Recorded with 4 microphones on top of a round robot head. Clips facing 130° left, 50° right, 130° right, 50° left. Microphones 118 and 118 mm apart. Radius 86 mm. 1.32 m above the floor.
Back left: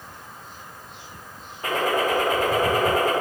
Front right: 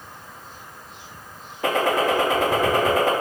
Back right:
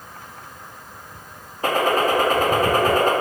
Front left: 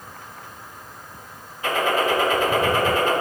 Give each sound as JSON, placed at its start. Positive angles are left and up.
{"t": 1.6, "sound": "a gunshot", "azimuth_deg": -75, "distance_m": 2.5}